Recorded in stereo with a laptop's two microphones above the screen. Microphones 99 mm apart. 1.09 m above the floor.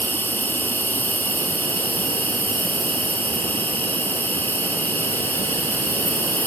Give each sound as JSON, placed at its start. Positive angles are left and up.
{"t": 0.0, "sound": "an insect", "side_deg": 20, "distance_m": 1.2}